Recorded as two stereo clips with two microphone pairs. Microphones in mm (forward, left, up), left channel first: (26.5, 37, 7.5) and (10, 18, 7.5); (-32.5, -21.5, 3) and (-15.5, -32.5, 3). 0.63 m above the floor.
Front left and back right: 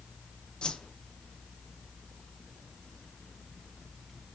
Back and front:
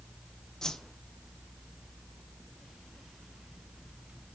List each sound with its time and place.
0.6 s a whoosh: 95° left, 0.5 m